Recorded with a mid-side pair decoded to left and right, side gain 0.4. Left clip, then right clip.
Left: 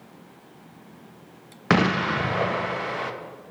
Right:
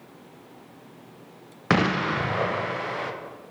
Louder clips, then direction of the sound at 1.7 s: Left 1 dB; 10° left.